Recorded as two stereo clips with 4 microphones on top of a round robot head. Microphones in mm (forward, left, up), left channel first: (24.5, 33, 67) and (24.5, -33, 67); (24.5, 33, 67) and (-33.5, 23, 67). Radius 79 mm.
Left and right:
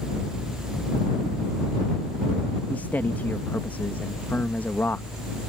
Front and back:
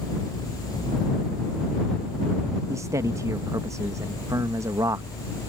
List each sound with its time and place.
2.7 s a man speaking: 160° left